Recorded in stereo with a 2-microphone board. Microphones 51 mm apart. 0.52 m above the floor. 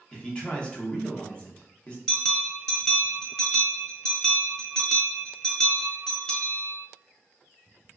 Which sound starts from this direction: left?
A man speaking, at 0.1 s.